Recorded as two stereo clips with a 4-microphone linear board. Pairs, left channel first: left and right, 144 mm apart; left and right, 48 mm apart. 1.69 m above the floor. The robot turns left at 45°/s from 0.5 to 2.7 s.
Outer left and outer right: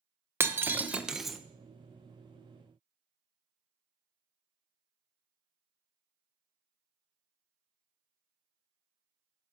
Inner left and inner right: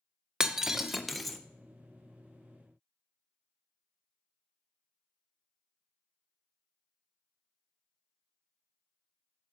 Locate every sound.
0.4 s breaking glass: 15° right (ahead or behind), 0.8 m; by 1.4 s centre (ahead or behind), 0.8 m